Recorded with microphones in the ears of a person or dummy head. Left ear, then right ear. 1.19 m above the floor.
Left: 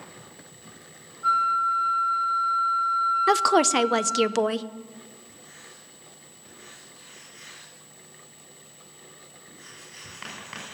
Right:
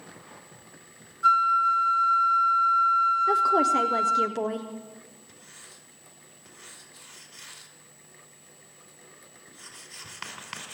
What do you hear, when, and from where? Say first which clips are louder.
1.2 s a flute: right 2 dB; 70° right (ahead or behind), 0.8 m
3.3 s a woman speaking: left 1 dB; 45° left (ahead or behind), 0.7 m
5.3 s writing: left 2 dB; 35° right (ahead or behind), 5 m